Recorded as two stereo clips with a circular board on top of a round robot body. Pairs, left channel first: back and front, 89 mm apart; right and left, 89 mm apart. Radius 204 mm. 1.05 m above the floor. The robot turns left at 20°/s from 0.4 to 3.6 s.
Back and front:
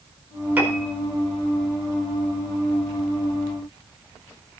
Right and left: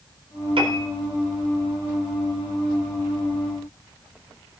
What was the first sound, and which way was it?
A piano, 75° left.